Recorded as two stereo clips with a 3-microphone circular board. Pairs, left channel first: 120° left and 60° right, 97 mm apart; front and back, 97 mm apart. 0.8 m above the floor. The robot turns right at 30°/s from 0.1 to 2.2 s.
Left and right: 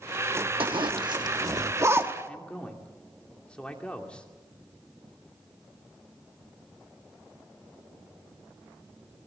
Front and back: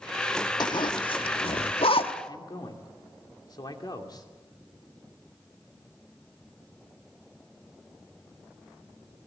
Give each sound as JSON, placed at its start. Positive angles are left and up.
{"t": 0.6, "sound": "a zipper", "azimuth_deg": -40, "distance_m": 1.1}
{"t": 2.2, "sound": "a man speaking", "azimuth_deg": 40, "distance_m": 2.5}